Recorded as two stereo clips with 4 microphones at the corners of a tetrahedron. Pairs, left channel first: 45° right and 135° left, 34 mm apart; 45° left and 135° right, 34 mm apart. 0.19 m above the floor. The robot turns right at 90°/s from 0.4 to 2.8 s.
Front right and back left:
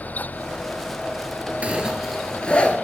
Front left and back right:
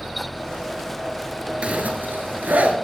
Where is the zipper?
175° left, 1.2 m; by 2.8 s 80° right, 1.2 m.